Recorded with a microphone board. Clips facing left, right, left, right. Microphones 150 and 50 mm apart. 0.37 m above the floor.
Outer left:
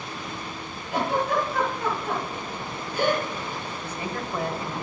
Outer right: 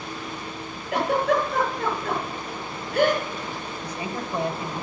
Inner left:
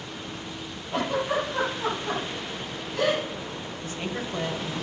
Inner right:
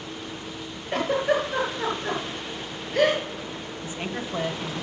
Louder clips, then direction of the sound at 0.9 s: Outer right 3 dB, inner right 3 dB; 65° right (ahead or behind).